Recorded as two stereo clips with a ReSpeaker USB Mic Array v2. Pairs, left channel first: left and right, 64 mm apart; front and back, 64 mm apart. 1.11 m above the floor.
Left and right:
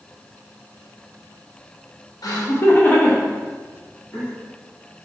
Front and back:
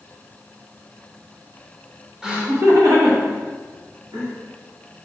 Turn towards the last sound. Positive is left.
turn(degrees=-175)